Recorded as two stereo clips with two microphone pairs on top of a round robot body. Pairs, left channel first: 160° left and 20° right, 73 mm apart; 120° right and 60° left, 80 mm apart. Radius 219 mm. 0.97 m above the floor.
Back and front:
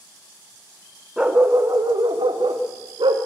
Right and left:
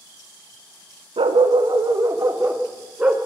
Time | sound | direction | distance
1.2 | a dog barking | 65° left | 0.7 m